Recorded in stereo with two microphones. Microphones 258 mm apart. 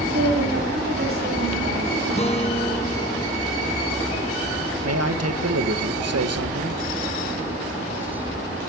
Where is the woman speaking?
65° right (ahead or behind), 9 m; by 1.9 s 60° right (ahead or behind), 9.5 m.